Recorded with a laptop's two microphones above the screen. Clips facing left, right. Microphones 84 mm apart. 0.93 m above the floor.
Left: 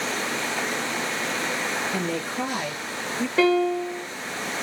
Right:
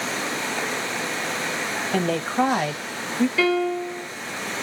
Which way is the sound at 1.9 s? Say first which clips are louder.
Right 5 dB; 60° right (ahead or behind).